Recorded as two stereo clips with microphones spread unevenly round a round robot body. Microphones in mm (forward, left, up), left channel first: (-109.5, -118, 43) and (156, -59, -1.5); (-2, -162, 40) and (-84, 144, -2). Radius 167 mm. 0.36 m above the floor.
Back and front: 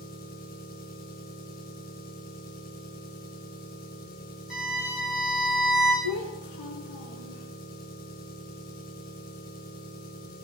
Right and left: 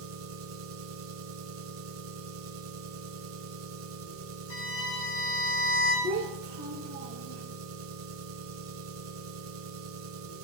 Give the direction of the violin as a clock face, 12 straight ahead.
3 o'clock.